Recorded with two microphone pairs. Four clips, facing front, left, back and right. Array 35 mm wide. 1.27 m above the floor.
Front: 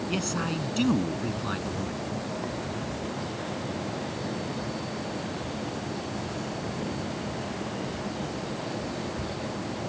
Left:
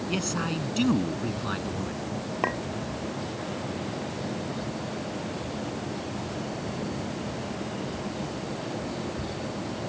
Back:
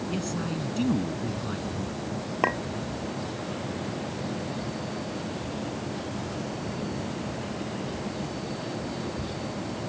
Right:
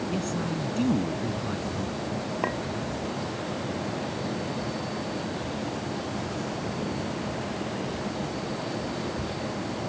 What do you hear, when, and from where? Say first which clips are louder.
0.1 s a man speaking: even, front 3 dB; 55° left
2.4 s a clink: left 2 dB, back 8 dB; 160° left